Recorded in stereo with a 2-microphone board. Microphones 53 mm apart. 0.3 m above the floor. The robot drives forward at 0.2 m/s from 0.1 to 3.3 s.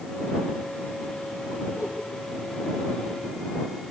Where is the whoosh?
75° left (ahead or behind), 7.5 m.